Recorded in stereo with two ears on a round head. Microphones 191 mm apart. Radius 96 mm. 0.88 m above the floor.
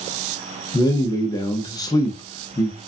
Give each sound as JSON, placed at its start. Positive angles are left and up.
{"t": 0.7, "sound": "a man speaking", "side_deg": 20, "distance_m": 0.7}